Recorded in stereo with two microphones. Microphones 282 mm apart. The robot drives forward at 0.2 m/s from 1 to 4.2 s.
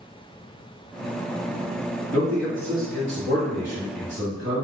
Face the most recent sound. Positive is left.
turn(degrees=-35)  # may be behind; listen again after turning